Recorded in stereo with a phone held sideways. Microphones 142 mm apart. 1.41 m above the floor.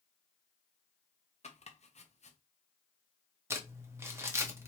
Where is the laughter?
I don't hear laughter.